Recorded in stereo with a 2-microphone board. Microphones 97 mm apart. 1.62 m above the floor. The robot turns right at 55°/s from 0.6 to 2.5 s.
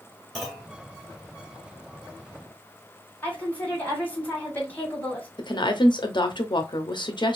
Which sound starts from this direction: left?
A woman speaking, at 5.4 s.